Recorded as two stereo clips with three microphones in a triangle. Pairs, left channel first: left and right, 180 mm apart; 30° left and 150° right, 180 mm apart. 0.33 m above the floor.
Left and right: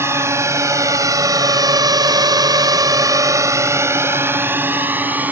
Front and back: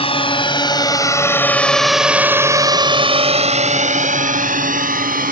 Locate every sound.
0.0 s a drone: 20° right; by 5.3 s 170° right